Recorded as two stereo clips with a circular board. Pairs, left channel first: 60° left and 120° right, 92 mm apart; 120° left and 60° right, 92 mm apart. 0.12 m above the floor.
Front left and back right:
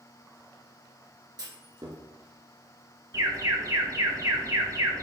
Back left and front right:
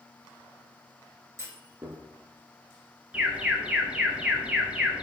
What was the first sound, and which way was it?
A clunk, 105° right.